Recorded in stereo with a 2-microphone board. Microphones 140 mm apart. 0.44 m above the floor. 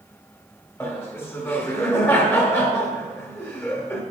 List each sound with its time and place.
0.8 s laughter: 15° left (ahead or behind), 1.6 m